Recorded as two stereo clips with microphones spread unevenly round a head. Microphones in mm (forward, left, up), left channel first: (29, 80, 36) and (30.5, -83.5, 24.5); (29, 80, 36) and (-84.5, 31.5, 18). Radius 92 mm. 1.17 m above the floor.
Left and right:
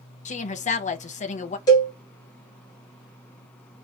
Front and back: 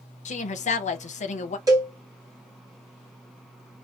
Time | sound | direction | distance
0.2 | a woman speaking | 45° left | 0.7 m
1.7 | a cowbell | 160° left | 1.1 m